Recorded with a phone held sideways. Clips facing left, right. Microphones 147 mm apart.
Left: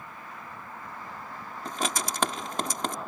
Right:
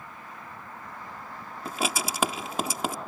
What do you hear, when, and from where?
1.6 s writing: 5° right (ahead or behind)